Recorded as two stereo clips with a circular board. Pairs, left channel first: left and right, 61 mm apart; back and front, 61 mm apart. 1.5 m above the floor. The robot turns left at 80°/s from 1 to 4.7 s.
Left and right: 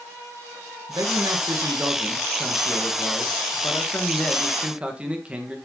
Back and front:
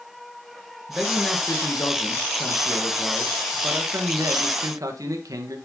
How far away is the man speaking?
About 1.8 m.